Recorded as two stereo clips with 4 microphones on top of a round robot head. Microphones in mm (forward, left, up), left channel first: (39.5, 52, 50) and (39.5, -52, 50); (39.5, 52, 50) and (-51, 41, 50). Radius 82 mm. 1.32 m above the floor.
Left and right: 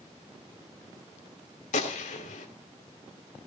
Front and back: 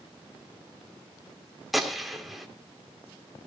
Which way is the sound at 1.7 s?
100° left.